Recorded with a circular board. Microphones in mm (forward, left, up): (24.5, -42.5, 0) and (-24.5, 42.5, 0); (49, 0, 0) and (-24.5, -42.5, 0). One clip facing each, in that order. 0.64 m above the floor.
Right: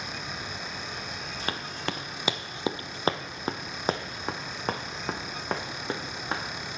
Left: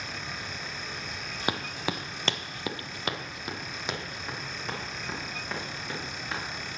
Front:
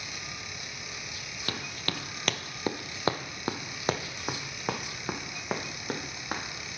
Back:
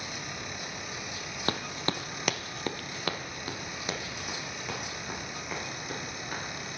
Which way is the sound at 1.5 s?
175° right.